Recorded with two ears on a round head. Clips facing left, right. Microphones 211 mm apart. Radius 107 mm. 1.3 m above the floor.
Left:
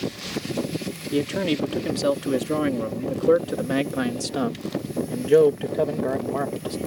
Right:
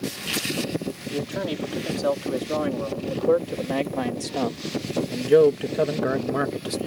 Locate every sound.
1.1 s a man speaking: 40° left (ahead or behind); by 6.8 s 25° right (ahead or behind)